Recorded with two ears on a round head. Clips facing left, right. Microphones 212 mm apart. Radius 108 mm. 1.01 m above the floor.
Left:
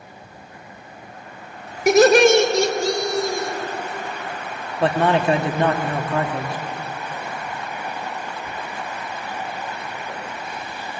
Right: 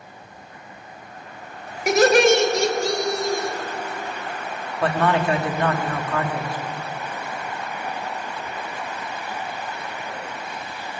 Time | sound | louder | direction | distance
1.9 | laughter | left 3 dB | 75° left (ahead or behind) | 3.5 m
4.8 | a man speaking | left 3 dB | 20° left (ahead or behind) | 1.9 m